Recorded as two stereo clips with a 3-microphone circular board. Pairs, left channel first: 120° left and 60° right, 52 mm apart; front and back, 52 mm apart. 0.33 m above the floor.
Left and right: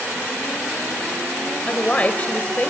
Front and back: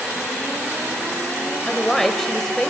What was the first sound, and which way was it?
A woman speaking, 75° left.